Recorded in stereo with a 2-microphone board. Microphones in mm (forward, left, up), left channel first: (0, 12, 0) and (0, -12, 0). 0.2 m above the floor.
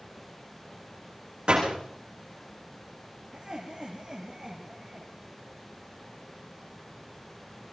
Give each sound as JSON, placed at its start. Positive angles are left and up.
{"t": 1.5, "sound": "a door slam", "side_deg": -45, "distance_m": 9.5}
{"t": 3.3, "sound": "laughter", "side_deg": -20, "distance_m": 4.0}